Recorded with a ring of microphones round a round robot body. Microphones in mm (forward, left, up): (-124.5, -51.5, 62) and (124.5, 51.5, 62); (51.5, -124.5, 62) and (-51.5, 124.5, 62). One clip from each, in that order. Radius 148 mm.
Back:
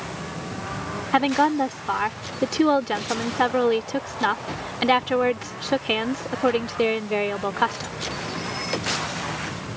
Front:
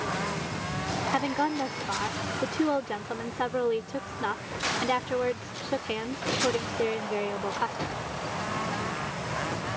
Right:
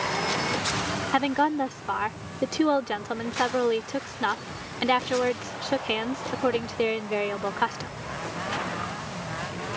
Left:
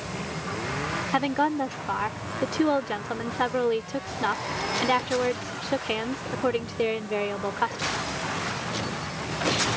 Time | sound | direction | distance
1.1 | a woman speaking | 130° right | ?